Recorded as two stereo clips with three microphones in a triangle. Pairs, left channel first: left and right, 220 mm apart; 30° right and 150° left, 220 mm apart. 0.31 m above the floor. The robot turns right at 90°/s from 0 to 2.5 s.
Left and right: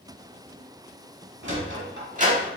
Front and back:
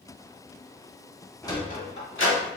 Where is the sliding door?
110° right, 0.7 m; by 2.5 s 15° right, 0.7 m.